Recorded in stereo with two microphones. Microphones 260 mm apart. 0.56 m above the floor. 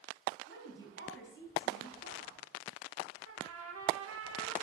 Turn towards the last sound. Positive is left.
turn(degrees=-65)  # may be behind; listen again after turning